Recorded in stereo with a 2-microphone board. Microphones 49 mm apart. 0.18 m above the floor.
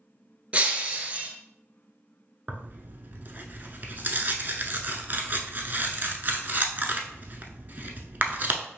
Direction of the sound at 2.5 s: 40° right (ahead or behind).